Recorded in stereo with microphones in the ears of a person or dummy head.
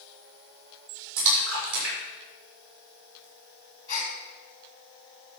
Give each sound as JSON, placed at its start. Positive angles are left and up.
{"t": 1.2, "sound": "a splash", "side_deg": -70, "distance_m": 6.5}
{"t": 3.9, "sound": "a gasp", "side_deg": -30, "distance_m": 2.5}